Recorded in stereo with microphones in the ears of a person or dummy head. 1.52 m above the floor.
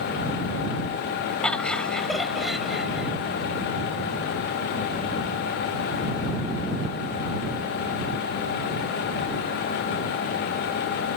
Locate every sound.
1.4 s laughter: 5° left (ahead or behind); by 3.1 s 5° right (ahead or behind)